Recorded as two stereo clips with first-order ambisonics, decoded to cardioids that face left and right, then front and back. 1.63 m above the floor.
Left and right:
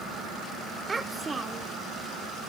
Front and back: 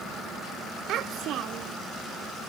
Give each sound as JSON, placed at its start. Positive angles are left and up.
{"t": 0.9, "sound": "a child speaking", "azimuth_deg": -160, "distance_m": 0.5}